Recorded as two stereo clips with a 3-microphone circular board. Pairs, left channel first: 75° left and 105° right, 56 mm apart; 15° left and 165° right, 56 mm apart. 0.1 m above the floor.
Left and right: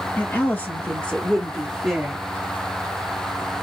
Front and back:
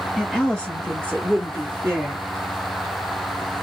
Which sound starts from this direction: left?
A woman speaking, at 0.2 s.